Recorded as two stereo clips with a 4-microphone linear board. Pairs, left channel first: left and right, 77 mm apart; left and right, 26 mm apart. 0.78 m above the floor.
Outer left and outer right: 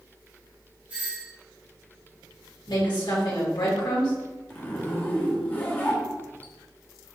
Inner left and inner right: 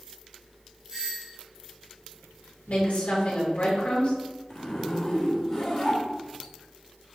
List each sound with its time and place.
0.9 s a doorbell: 20° right (ahead or behind), 1.9 m
2.7 s a woman speaking: 75° left (ahead or behind), 2.5 m
4.5 s a zipper: 25° left (ahead or behind), 1.6 m